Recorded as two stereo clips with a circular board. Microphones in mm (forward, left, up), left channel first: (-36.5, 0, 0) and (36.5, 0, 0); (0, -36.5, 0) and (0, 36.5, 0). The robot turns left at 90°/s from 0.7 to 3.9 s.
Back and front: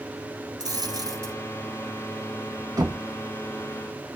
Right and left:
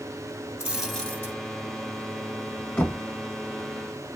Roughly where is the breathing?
I don't hear breathing.